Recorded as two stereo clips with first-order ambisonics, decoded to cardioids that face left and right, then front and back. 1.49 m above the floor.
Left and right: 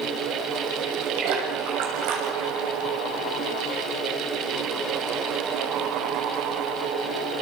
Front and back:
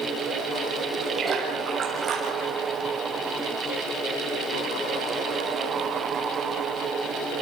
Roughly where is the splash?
Right.